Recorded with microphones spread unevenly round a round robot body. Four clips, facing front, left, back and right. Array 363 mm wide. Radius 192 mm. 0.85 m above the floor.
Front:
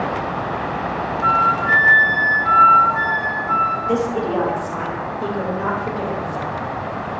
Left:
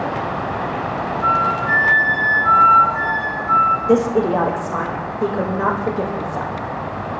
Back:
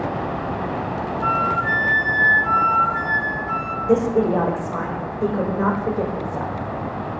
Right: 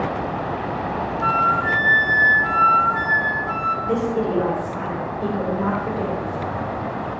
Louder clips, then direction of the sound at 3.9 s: Left 6 dB, back 2 dB; 85° left.